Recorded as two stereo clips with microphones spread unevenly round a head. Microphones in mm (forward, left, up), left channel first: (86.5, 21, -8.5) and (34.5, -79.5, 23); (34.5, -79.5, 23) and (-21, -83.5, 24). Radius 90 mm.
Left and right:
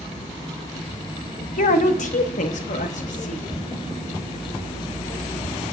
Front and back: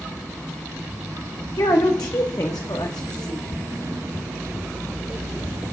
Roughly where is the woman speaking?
Ahead left.